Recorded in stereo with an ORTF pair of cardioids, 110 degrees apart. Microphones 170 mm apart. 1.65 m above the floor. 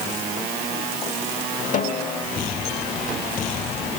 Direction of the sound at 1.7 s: 50° left.